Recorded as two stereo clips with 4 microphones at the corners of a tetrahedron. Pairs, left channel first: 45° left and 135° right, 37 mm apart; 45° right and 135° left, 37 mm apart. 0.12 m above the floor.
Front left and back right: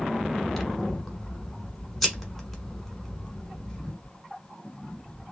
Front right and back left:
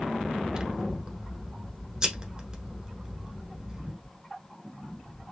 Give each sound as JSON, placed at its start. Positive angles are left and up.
{"t": 0.5, "sound": "scissors", "azimuth_deg": 135, "distance_m": 1.1}